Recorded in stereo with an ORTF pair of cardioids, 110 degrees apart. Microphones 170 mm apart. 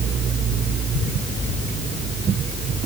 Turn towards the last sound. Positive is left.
No sound to turn to.